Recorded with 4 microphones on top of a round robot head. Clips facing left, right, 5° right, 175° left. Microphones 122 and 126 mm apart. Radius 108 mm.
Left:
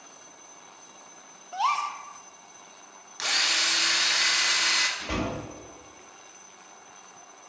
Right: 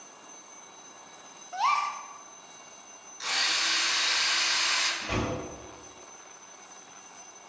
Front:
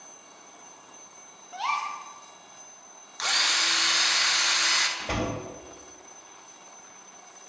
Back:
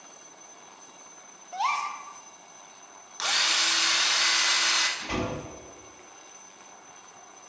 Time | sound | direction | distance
1.5 | a gasp | 160° left | 0.6 m
3.2 | a drill | 90° left | 0.6 m
5.0 | a door slam | 35° left | 1.9 m